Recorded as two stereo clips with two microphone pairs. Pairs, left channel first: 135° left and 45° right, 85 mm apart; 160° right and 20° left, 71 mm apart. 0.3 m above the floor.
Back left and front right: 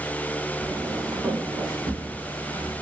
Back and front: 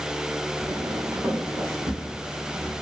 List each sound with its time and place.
0.6 s footsteps: 15° left, 0.8 m; by 2.7 s 45° right, 2 m